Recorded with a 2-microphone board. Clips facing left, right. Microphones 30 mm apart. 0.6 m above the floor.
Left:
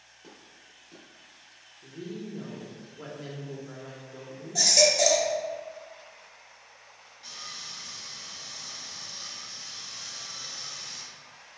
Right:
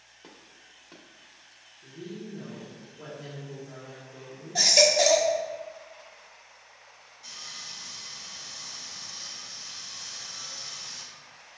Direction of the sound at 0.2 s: 45° right (ahead or behind).